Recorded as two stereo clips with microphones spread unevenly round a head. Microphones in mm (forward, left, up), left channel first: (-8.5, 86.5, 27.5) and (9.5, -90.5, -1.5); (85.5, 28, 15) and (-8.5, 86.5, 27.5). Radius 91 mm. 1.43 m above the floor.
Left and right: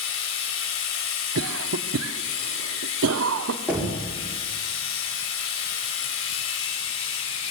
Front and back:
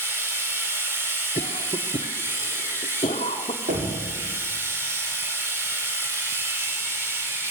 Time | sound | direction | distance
0.0 | a machine running | 80° left | 4.5 m
1.4 | a cough | 90° right | 0.8 m
3.7 | knocking | 165° right | 4 m